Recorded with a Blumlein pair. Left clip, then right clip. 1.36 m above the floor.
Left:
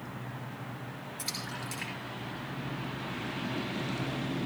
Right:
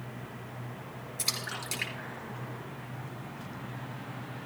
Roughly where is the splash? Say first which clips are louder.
Right 4 dB; ahead.